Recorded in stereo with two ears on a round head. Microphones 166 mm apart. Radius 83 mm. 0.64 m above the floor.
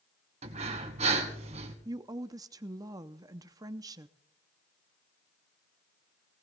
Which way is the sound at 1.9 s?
20° right (ahead or behind).